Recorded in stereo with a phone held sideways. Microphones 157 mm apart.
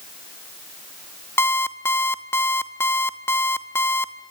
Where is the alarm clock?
15° left (ahead or behind), 0.9 m.